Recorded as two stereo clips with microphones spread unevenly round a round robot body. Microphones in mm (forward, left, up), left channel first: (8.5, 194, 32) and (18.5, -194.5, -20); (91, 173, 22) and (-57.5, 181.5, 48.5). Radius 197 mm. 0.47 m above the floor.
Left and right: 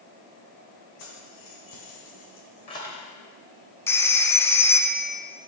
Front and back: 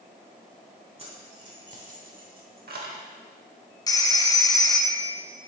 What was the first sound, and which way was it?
Keys jangling, 125° left.